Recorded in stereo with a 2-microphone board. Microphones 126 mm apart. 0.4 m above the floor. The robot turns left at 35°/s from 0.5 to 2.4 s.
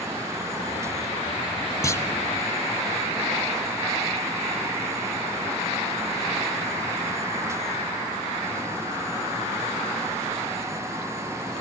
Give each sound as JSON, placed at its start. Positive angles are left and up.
{"t": 1.8, "sound": "a clunk", "side_deg": 25, "distance_m": 1.2}